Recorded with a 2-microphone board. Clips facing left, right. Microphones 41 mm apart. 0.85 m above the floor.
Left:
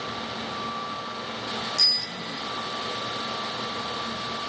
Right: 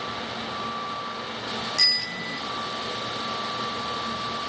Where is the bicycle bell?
90° right, 4.5 m.